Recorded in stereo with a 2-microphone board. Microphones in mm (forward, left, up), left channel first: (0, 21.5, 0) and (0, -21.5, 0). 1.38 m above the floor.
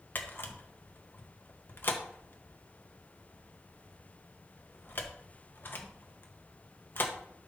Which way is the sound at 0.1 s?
50° left (ahead or behind).